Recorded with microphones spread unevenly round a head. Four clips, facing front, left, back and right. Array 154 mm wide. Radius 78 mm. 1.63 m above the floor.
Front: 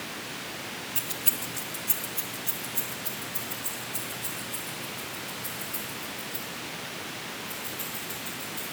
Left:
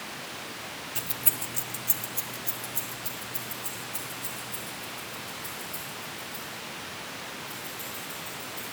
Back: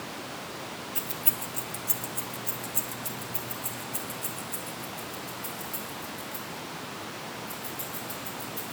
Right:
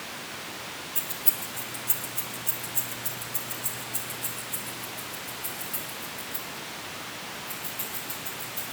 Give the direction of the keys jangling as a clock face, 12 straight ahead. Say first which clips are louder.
Even, back 1 dB; 9 o'clock.